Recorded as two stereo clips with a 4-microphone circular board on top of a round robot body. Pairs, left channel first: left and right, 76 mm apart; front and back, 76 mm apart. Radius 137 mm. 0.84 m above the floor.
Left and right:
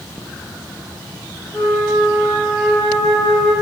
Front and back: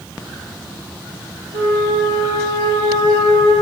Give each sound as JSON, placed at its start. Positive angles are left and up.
{"t": 1.5, "sound": "a flute", "azimuth_deg": 140, "distance_m": 1.5}